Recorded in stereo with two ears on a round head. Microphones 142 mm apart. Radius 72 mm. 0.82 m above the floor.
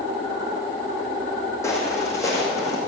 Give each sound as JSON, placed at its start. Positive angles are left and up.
{"t": 1.6, "sound": "footsteps", "side_deg": 20, "distance_m": 3.0}